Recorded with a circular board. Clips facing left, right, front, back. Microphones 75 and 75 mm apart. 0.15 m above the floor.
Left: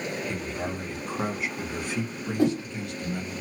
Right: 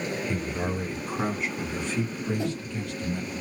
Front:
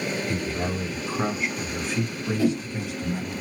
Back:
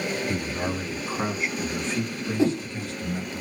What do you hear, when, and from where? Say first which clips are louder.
0.3 s a man speaking: right 2 dB, even; 135° right, 1.4 m; by 3.4 s 55° left, 1.7 m
2.4 s a whoosh: left 7 dB, back 1 dB; 115° left, 1.3 m